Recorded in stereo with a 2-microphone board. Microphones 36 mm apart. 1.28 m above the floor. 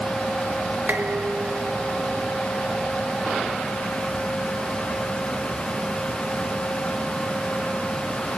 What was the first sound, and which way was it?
Dishes clattering, 55° right (ahead or behind).